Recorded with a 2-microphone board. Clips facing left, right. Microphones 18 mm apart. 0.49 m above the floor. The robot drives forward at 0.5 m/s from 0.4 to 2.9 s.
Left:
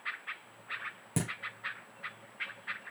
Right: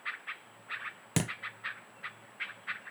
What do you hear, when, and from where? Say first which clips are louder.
1.2 s a thud: right 3 dB; 55° right (ahead or behind), 0.7 m